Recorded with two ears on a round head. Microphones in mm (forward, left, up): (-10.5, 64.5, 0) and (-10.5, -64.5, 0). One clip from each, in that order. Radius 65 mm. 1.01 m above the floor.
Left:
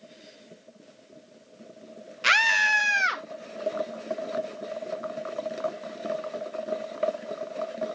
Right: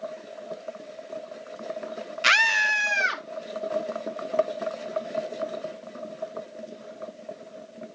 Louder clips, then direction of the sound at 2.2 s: Right 1 dB; 20° right (ahead or behind).